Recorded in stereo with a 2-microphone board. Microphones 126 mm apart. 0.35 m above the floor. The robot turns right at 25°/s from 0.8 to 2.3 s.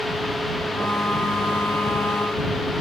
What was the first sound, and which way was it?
Only background noise.